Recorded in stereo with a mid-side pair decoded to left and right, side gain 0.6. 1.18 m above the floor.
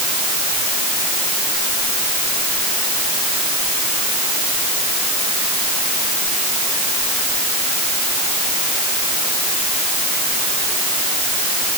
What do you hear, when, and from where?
Only background noise.